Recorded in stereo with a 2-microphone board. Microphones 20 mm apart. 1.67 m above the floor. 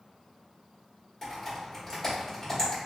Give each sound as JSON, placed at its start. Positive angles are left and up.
{"t": 1.2, "sound": "typing on a keyboard", "side_deg": 15, "distance_m": 1.4}